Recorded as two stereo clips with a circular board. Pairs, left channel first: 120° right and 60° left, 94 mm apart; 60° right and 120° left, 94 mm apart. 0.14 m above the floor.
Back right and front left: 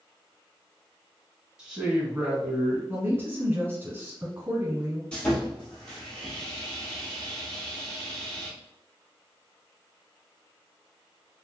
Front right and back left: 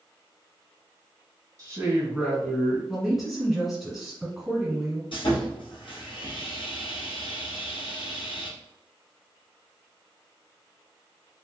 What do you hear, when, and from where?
1.6 s a man speaking: 135° left, 1.5 m; by 2.8 s 15° right, 1.6 m
2.9 s a woman speaking: 35° left, 1.2 m
5.1 s sawing: 40° right, 1.6 m